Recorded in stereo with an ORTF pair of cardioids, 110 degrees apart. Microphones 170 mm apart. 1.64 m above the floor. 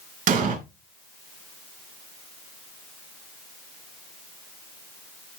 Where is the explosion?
55° right, 3 m.